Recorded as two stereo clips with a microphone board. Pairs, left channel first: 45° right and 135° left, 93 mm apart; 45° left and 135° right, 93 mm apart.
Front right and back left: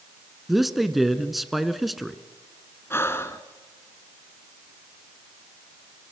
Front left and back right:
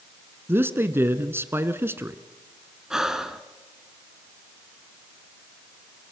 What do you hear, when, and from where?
0.5 s a man speaking: 140° right, 1.2 m
2.9 s breathing: 60° right, 1.3 m